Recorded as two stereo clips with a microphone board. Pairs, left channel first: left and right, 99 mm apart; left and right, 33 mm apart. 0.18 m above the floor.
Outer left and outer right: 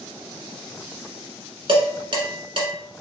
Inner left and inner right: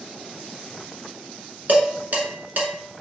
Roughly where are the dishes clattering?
Right.